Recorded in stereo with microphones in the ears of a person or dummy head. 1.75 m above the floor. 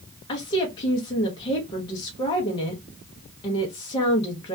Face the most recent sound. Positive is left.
turn(degrees=25)  # may be behind; listen again after turning